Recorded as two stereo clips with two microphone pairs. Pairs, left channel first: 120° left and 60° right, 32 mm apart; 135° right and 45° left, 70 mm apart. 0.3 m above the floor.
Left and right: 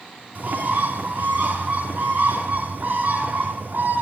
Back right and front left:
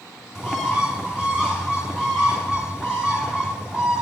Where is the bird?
35° right, 2.5 m.